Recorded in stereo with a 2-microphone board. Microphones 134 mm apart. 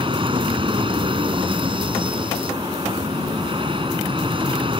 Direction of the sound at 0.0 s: 40° right (ahead or behind).